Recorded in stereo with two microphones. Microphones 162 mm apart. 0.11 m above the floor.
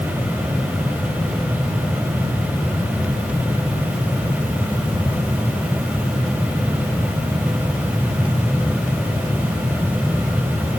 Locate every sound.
Only background noise.